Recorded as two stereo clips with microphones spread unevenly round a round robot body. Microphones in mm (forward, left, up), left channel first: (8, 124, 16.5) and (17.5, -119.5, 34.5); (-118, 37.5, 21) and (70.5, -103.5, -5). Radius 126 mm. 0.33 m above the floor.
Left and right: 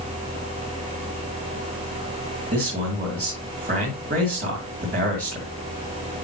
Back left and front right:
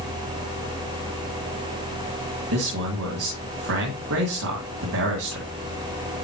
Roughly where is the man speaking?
Ahead right.